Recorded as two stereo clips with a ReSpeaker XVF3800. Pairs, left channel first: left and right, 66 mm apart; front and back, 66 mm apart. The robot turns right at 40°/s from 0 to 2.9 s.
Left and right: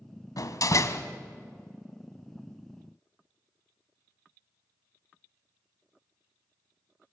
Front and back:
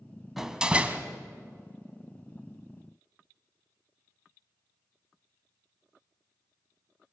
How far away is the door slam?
About 1.5 m.